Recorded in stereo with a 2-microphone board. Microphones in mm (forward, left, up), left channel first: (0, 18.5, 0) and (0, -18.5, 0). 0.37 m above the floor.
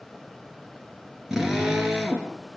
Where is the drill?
10° right (ahead or behind), 5 m.